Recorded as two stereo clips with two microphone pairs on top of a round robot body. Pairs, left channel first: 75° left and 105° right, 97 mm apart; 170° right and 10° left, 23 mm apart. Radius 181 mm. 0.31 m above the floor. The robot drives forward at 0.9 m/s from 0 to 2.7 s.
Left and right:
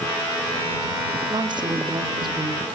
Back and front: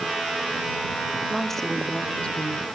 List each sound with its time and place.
1.3 s a woman speaking: 80° right, 1.1 m; by 2.6 s 145° right, 1.5 m